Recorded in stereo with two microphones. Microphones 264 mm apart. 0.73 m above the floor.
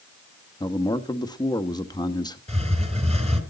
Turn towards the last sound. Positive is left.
turn(degrees=-25)  # may be behind; listen again after turning